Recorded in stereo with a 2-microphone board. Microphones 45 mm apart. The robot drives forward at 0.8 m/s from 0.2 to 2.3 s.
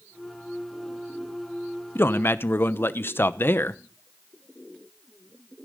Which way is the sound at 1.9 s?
55° left (ahead or behind).